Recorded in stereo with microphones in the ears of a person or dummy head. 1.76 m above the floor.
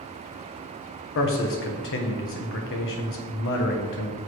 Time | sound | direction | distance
1.1 | a man speaking | 70° left (ahead or behind) | 1.3 m